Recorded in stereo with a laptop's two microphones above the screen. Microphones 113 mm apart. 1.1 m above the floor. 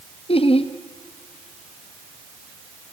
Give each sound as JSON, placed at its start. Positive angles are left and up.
{"t": 0.3, "sound": "laughter", "side_deg": 55, "distance_m": 1.2}